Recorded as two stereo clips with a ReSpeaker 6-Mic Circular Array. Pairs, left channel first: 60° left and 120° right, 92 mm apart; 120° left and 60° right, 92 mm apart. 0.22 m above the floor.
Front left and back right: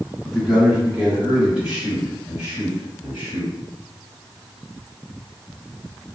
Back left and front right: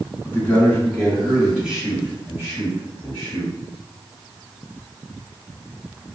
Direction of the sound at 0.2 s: 160° left.